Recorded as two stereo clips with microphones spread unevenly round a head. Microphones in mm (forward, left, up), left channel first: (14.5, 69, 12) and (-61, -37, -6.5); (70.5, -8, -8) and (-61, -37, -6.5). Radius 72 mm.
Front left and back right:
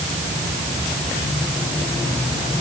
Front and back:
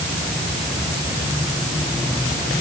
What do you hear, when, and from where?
Only background noise.